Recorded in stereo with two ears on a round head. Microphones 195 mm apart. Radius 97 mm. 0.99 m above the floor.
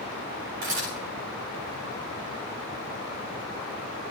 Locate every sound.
0.6 s a camera shutter: 80° right, 4 m